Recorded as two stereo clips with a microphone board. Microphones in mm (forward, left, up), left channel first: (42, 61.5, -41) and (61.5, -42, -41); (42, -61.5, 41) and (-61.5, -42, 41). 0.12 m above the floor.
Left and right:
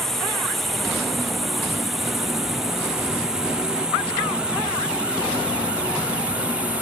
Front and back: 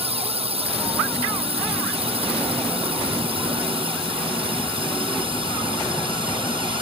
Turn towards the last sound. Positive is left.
turn(degrees=-155)